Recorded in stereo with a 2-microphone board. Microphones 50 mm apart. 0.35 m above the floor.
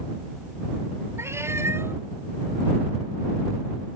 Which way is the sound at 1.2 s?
65° right (ahead or behind).